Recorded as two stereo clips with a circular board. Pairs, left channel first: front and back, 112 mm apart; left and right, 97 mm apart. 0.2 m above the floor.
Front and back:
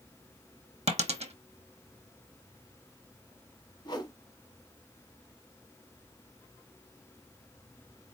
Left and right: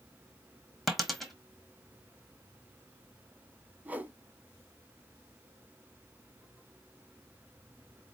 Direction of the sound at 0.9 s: Straight behind.